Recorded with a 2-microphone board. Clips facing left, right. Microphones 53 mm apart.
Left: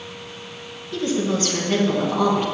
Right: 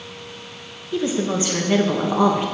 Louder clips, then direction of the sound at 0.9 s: Right 1 dB; 15° right (ahead or behind).